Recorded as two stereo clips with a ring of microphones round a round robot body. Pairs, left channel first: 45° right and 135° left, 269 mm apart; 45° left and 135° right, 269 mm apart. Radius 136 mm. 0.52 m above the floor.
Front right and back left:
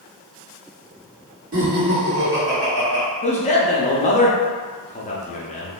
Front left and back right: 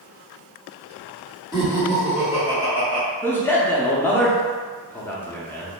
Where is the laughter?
110° left, 1.3 m; by 3.0 s 170° left, 1.8 m.